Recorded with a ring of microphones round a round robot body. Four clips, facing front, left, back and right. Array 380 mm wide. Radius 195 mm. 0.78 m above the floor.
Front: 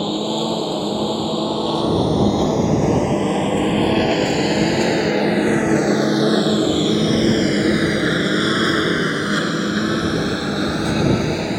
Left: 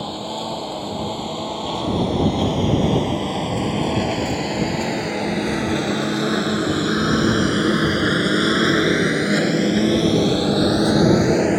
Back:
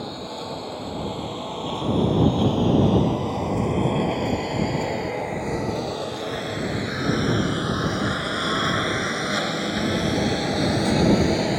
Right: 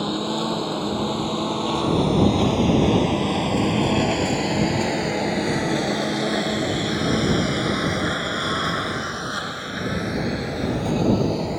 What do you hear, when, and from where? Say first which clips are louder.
0.0 s a lawn mower: right 3 dB, front 11 dB; 20° right; by 11.6 s 80° left